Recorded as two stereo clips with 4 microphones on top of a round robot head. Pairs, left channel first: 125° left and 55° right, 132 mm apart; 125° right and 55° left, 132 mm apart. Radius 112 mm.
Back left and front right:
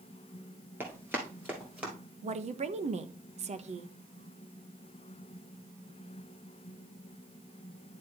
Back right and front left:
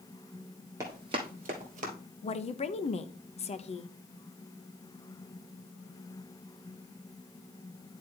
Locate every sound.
0.8 s running footsteps: 5° left, 1.0 m; by 1.9 s 20° left, 1.6 m
2.2 s a woman speaking: 90° right, 0.8 m